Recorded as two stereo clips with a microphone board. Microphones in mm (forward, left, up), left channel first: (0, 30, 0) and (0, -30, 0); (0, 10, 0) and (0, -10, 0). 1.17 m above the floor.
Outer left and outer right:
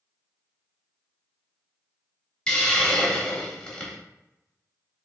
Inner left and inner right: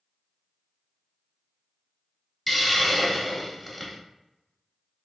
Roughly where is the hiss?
Centre.